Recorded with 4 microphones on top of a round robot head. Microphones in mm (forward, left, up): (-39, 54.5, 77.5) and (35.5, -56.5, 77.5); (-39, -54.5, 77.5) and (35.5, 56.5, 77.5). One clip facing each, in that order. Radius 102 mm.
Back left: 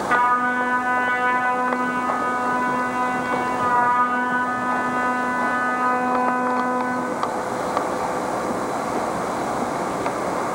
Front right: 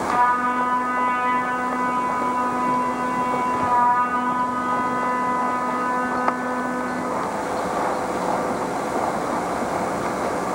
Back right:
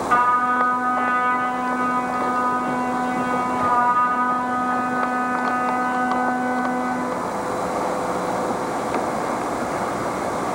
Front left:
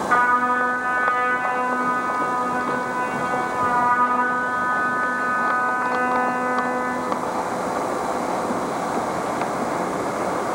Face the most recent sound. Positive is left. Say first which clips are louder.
# even, back right 1 dB
turn(degrees=155)